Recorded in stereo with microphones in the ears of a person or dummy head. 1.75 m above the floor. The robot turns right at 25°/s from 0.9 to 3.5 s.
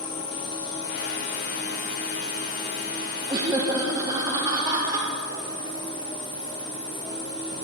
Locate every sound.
0.0 s an insect: 75° left, 1.7 m; by 7.7 s 140° left, 1.7 m
3.3 s laughter: 25° right (ahead or behind), 0.7 m; by 5.1 s 20° right (ahead or behind), 0.7 m